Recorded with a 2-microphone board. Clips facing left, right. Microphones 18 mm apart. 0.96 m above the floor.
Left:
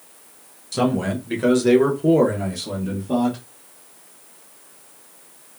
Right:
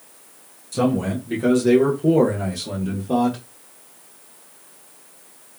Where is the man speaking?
35° left (ahead or behind), 1.2 m; by 3.4 s 20° right (ahead or behind), 1.1 m.